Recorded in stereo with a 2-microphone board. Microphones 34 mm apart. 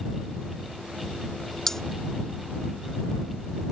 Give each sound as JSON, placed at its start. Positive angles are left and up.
{"t": 1.7, "sound": "cutlery clinking", "side_deg": 10}